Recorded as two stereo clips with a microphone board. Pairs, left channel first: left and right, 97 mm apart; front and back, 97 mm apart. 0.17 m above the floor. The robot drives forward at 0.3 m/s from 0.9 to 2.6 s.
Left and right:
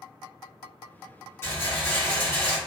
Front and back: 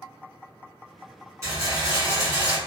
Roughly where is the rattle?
Behind left.